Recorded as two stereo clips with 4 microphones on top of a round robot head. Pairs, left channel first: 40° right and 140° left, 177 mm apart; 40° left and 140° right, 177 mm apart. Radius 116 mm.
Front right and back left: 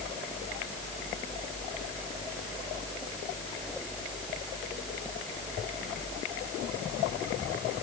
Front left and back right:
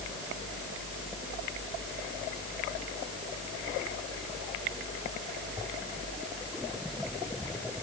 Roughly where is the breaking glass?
I don't hear breaking glass.